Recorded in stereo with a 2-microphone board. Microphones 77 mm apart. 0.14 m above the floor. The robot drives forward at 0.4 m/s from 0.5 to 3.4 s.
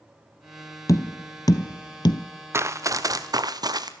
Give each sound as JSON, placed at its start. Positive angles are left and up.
{"t": 0.9, "sound": "tapping", "side_deg": 45, "distance_m": 1.0}
{"t": 2.5, "sound": "running footsteps", "side_deg": -35, "distance_m": 1.0}